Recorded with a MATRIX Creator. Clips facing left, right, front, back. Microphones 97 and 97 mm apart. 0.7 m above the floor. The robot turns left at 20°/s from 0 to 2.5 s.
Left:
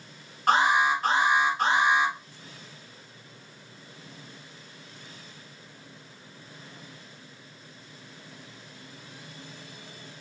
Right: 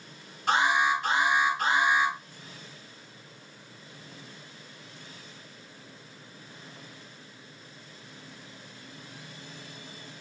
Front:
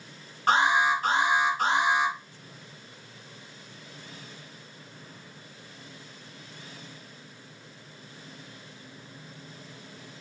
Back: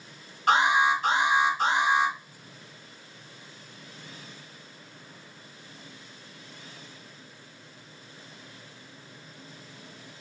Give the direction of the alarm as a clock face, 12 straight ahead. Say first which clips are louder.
Left 2 dB, back 1 dB; 10 o'clock.